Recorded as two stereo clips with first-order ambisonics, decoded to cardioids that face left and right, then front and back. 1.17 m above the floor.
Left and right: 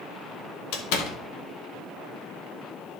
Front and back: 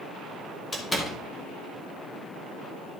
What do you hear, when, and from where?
0.7 s a door slam: 80° left, 1.4 m